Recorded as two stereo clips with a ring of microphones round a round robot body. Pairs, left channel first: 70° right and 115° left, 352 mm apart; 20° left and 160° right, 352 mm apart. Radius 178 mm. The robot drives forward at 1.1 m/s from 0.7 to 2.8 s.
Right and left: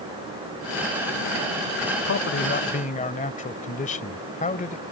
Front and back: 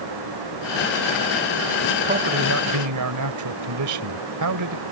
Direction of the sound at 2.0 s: 100° right.